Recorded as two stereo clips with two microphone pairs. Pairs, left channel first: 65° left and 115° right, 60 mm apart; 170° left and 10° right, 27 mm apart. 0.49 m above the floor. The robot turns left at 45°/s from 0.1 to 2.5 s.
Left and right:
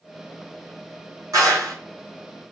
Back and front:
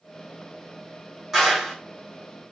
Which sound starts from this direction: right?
A clap, at 1.3 s.